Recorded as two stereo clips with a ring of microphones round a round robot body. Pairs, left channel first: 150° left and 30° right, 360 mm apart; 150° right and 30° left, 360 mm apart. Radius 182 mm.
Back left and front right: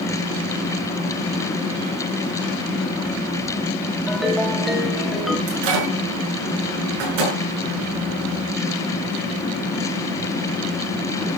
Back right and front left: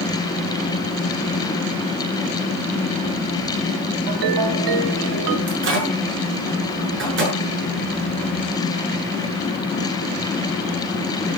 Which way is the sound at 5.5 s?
30° right.